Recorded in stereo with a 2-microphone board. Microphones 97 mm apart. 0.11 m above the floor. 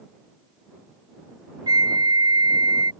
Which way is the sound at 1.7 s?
50° right (ahead or behind).